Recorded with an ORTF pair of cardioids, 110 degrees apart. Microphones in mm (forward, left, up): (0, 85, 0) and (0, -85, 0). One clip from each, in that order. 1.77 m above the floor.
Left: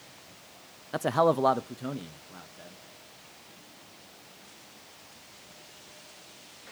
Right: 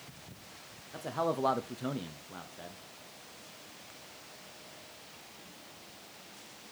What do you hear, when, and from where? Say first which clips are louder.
0.9 s a man speaking: left 9 dB; 65° left, 0.6 m; by 2.8 s 20° right, 1.5 m